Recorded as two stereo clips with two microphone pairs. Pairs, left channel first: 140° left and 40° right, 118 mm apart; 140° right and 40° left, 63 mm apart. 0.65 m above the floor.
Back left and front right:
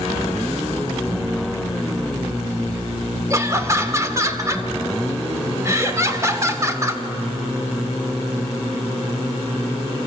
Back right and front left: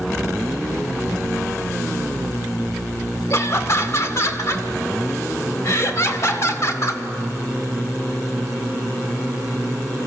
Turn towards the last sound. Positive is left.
turn(degrees=-100)